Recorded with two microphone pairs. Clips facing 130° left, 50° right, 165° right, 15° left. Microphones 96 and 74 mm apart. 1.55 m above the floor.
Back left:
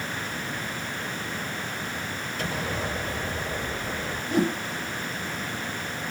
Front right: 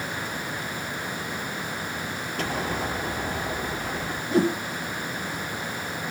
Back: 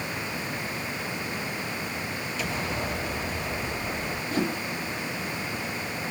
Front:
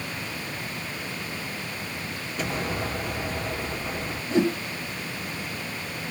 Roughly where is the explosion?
Ahead right.